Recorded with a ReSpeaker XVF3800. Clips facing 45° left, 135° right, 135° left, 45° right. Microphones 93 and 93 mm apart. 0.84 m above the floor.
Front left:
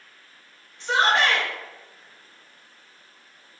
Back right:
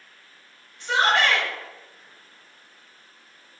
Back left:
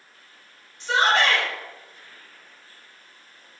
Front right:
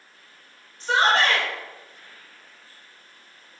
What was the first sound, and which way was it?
A shout, 5° right.